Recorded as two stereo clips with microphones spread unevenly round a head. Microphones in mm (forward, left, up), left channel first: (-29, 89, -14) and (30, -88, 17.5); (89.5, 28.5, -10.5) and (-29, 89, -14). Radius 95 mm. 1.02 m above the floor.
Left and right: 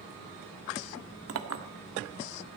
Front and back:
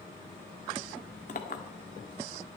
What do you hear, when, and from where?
1.3 s a clink: 75° right, 1.3 m